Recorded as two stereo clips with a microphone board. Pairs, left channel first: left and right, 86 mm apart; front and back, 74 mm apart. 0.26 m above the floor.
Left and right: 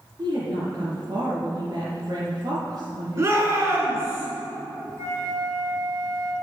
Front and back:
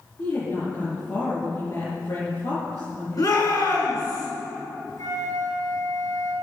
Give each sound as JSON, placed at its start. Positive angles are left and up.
{"t": 0.2, "sound": "a woman speaking", "azimuth_deg": -45, "distance_m": 4.0}
{"t": 3.2, "sound": "a shout", "azimuth_deg": -35, "distance_m": 5.0}
{"t": 5.0, "sound": "a flute", "azimuth_deg": -40, "distance_m": 3.0}